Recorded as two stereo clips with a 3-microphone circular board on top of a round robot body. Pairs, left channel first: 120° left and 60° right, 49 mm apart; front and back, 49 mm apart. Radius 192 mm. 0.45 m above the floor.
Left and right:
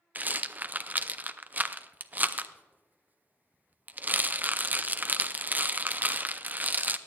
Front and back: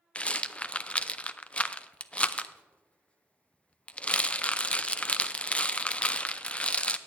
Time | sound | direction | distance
0.1 | a rattle | 45° right | 0.7 m